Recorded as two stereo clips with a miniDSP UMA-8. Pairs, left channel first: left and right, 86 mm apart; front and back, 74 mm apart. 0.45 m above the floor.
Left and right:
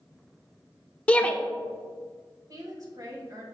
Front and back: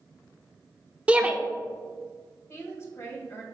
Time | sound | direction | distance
1.1 | a shout | 135° left | 0.7 m
2.5 | a woman speaking | 50° right | 2 m